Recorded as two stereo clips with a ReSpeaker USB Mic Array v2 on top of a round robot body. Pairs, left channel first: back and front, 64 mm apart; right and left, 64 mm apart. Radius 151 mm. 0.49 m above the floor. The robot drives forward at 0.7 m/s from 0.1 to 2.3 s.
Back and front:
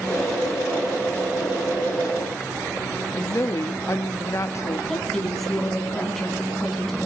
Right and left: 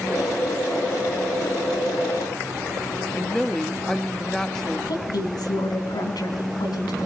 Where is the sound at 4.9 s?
95° right, 4.5 m.